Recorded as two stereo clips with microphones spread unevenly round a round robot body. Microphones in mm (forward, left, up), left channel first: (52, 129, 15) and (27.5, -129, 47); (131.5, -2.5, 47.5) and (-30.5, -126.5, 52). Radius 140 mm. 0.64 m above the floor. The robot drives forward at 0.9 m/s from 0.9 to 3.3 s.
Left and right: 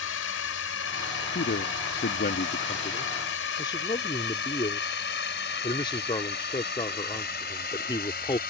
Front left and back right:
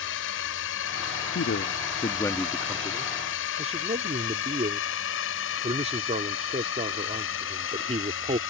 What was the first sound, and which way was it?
A drone, 55° left.